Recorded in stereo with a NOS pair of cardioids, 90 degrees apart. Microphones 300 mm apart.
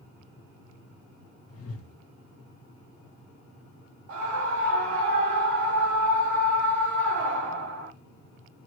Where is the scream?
55° right, 1.2 m.